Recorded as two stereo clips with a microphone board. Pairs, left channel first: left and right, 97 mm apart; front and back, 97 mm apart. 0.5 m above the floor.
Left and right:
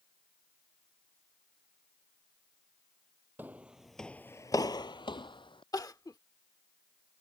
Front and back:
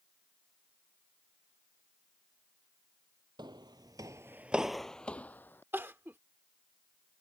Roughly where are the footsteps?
Behind right.